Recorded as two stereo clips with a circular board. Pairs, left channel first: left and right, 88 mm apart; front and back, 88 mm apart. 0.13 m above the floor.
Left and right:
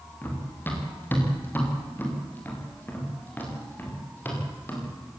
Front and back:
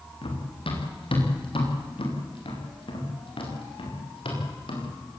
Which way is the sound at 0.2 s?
20° left.